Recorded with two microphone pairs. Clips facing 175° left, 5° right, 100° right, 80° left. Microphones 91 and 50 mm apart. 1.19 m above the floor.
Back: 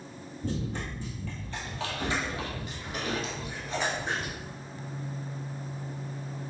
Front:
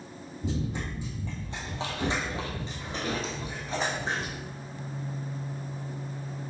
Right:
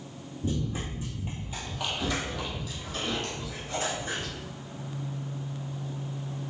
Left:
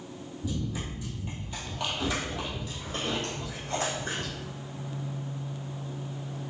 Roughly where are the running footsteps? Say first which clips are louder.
Front 1 dB, right 2 dB; right.